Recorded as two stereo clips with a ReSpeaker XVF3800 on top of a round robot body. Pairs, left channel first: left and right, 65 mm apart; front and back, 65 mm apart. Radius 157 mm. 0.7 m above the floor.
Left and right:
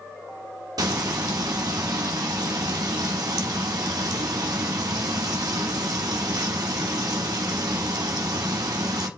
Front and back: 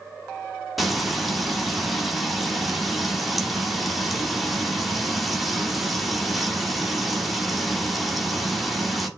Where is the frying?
90° right, 1.5 m.